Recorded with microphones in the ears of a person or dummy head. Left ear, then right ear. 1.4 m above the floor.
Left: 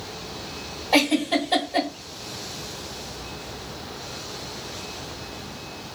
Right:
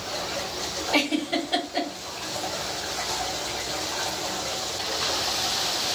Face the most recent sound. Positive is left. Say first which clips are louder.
# left 5 dB
turn(degrees=40)  # may be behind; listen again after turning